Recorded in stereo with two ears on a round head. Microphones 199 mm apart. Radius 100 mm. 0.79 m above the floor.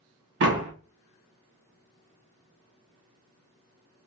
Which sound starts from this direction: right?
A door slam, at 0.4 s.